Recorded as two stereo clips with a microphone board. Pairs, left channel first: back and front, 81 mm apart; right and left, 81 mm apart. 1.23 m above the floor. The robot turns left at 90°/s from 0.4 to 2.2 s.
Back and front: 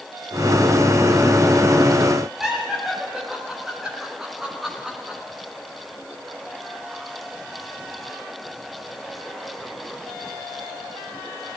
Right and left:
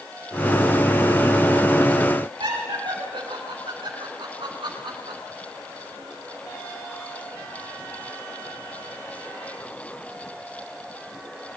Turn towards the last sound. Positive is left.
turn(degrees=90)